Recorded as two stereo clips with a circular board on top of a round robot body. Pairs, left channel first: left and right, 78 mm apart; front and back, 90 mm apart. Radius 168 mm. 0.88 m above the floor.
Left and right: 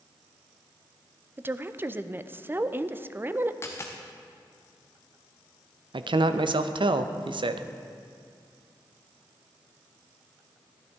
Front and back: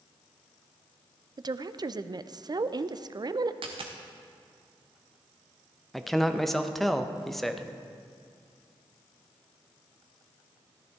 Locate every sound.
1.4 s a woman speaking: 145° right, 0.5 m
3.6 s a dropped coin: 150° left, 0.5 m
5.9 s a man speaking: 90° right, 0.7 m